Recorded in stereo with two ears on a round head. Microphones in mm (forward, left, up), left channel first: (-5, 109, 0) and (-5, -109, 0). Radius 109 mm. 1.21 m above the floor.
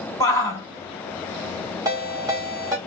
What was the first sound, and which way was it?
A shout, 15° left (ahead or behind).